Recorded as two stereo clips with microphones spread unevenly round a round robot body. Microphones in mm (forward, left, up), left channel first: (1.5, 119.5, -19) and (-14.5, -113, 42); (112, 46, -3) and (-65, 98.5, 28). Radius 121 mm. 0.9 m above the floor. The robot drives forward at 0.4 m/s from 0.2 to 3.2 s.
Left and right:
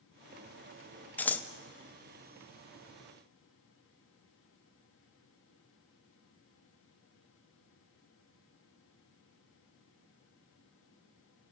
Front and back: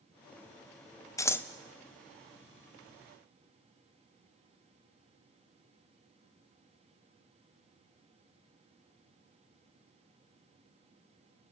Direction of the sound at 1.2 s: 30° left.